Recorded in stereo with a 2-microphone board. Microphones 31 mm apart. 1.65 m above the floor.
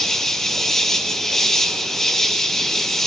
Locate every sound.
0.0 s an insect: 15° left (ahead or behind), 1.0 m